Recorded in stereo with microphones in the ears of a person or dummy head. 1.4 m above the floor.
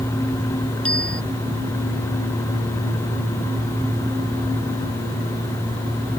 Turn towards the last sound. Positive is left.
turn(degrees=5)  # may be behind; listen again after turning